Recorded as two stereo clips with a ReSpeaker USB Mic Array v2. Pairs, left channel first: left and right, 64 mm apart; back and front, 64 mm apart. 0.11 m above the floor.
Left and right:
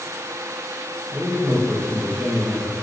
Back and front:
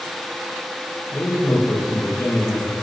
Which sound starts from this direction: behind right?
A man speaking, at 1.1 s.